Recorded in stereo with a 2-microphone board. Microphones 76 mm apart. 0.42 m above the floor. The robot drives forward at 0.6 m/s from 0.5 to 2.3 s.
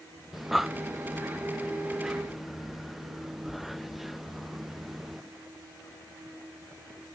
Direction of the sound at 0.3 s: Centre (ahead or behind).